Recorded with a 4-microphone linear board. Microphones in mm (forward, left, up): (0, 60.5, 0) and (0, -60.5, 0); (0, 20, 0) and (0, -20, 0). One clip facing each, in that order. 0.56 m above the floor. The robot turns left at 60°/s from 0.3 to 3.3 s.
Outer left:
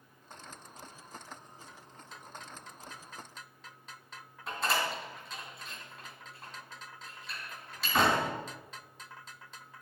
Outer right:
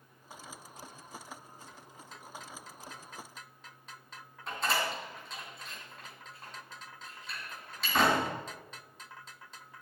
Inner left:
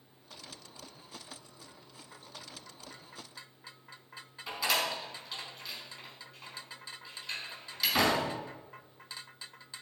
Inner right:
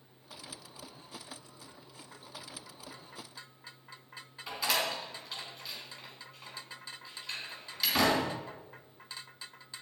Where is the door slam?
5° left (ahead or behind), 3.5 m.